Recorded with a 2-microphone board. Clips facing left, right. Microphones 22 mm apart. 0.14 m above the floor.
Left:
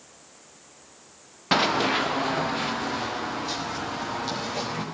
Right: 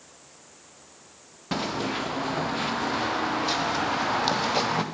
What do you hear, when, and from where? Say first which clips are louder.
1.5 s running footsteps: left 7 dB; 35° left (ahead or behind), 0.8 m; by 4.8 s 50° right (ahead or behind), 1.5 m